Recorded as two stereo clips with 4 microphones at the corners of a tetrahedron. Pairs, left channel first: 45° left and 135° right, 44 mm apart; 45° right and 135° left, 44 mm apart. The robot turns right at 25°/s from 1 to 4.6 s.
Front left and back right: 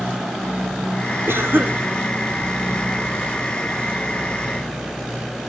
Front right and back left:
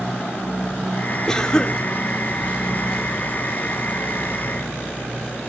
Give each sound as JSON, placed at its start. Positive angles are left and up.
{"t": 1.3, "sound": "a cough", "azimuth_deg": -120, "distance_m": 2.0}